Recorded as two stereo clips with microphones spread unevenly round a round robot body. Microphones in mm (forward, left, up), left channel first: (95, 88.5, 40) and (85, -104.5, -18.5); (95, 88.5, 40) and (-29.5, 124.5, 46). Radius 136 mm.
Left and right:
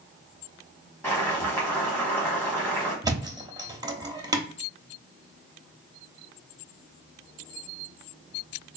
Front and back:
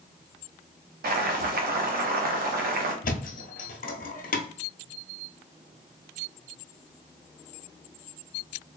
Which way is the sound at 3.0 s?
15° right.